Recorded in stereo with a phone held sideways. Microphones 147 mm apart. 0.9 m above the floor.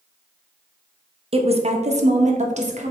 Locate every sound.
1.3 s a woman speaking: 40° right (ahead or behind), 0.8 m; by 2.9 s 50° right (ahead or behind), 1.3 m